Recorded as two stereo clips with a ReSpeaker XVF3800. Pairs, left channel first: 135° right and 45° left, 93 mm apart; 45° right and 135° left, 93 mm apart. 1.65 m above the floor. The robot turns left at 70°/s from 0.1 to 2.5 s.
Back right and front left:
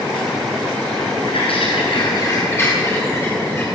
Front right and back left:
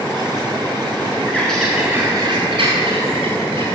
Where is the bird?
110° right, 8 m; by 3.6 s 160° left, 8 m.